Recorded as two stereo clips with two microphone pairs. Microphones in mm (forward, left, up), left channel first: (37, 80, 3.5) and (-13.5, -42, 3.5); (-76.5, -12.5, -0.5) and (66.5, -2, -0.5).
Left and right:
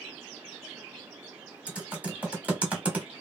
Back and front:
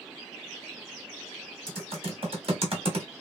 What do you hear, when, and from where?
1.7 s typing on a keyboard: 35° right, 1.1 m